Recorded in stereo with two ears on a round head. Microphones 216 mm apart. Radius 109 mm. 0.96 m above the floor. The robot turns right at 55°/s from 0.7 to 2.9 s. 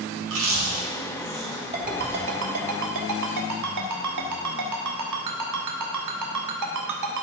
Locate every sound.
0.2 s chewing: 55° right (ahead or behind), 2 m; by 2.4 s 30° left (ahead or behind), 2 m
1.7 s a ringtone: 30° right (ahead or behind), 1.5 m; by 7.2 s 85° right, 1.5 m